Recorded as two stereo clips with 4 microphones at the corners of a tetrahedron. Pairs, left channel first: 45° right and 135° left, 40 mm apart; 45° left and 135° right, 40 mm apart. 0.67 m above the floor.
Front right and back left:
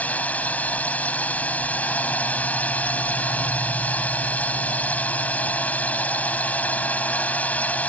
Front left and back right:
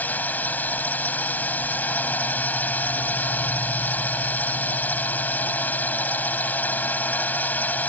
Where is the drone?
5° left.